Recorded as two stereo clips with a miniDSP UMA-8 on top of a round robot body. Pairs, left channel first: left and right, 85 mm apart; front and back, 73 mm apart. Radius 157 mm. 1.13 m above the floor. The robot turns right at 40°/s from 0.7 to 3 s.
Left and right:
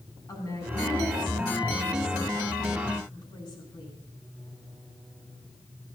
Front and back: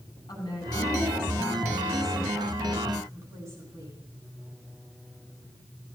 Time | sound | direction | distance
0.3 | a woman speaking | 40° left | 9 m